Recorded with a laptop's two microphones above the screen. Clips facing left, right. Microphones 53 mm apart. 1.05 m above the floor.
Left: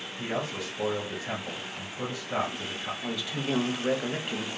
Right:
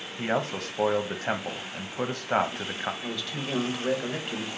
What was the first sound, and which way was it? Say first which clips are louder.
A man speaking: right 4 dB; 55° right (ahead or behind).